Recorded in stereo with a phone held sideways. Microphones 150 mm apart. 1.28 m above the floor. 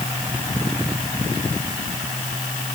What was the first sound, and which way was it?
Only background noise.